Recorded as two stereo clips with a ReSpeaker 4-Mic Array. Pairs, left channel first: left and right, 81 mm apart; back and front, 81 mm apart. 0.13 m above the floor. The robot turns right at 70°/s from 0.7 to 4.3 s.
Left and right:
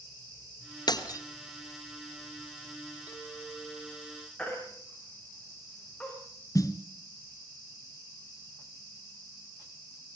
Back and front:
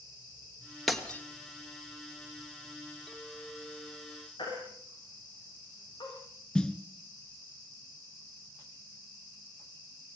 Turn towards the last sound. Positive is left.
turn(degrees=105)